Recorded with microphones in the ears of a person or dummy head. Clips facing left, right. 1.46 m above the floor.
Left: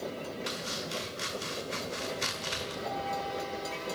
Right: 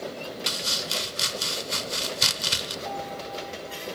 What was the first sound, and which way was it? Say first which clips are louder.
Chopping: right 2 dB; 50° right (ahead or behind).